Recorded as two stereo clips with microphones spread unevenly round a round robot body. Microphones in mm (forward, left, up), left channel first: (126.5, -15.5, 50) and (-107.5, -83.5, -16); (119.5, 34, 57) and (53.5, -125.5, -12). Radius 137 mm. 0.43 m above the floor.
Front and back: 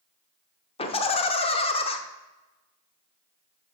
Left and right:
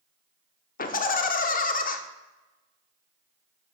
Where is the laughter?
90° left, 0.9 m.